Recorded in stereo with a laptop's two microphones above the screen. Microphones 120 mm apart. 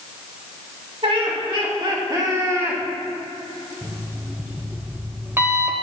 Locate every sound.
1.0 s laughter: 55° right (ahead or behind), 4 m; by 2.8 s 25° right (ahead or behind), 3 m
3.8 s an alarm clock: 20° right (ahead or behind), 1.7 m